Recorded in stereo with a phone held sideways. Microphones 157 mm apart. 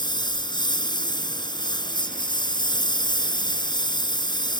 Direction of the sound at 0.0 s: 30° left (ahead or behind).